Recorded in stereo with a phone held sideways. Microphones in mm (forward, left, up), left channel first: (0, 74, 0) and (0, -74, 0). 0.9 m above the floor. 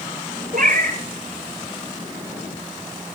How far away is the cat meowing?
About 4.5 m.